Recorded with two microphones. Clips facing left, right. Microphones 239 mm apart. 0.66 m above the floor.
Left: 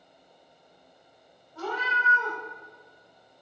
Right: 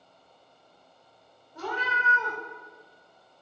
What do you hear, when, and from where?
1.6 s a cat meowing: 15° right (ahead or behind), 1.1 m